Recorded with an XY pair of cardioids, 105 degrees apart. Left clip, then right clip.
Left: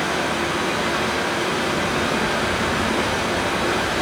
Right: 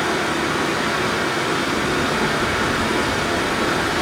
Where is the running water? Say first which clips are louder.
Right 1 dB; 60° right, 2 m.